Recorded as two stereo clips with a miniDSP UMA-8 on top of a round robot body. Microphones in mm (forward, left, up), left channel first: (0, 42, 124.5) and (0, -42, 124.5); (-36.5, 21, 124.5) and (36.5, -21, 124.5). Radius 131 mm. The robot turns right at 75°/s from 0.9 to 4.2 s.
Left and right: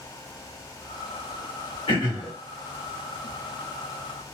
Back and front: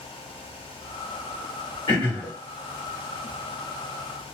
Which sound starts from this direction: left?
Throat clearing, at 1.9 s.